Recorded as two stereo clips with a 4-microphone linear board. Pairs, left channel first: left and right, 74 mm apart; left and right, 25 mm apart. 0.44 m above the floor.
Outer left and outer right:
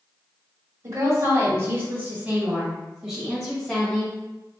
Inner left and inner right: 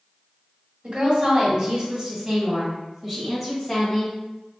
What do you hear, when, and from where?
0.8 s a woman speaking: 50° right (ahead or behind), 1.7 m; by 4.2 s 15° left (ahead or behind), 2 m